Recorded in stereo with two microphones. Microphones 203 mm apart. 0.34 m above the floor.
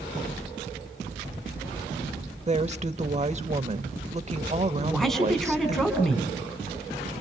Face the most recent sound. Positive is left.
turn(degrees=0)  # may be behind; listen again after turning